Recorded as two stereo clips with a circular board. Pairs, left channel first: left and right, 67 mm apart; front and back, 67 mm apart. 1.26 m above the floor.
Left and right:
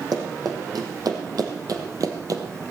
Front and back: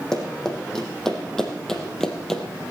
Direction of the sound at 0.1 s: 85° right.